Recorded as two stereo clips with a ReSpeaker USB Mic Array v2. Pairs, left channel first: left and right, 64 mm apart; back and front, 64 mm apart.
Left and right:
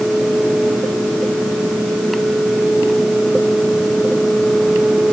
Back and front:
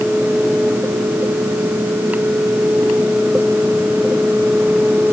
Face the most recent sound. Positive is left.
No sound to turn to.